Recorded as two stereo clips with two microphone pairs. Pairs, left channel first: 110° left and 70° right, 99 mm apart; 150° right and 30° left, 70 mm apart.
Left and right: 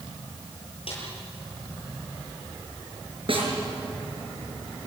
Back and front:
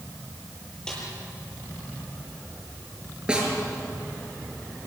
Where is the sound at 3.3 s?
45° right, 6 m.